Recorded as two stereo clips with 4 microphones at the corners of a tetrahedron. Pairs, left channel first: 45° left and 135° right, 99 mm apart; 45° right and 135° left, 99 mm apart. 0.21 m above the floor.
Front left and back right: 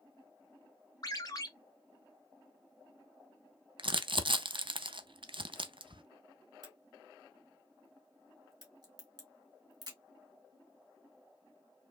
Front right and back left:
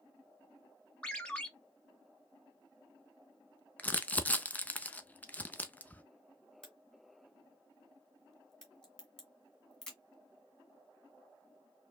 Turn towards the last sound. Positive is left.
turn(degrees=-125)